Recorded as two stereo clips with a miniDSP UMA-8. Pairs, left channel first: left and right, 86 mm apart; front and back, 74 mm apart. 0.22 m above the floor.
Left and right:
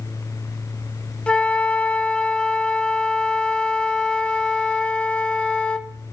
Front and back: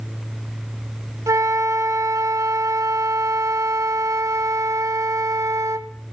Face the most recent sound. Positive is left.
turn(degrees=165)